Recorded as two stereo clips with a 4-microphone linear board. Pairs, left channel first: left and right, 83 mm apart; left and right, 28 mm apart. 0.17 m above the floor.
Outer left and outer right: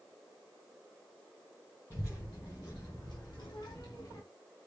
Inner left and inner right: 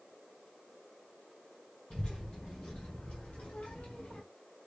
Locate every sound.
1.9 s a child speaking: 40° left (ahead or behind), 3 m; by 4.2 s 45° left (ahead or behind), 1.0 m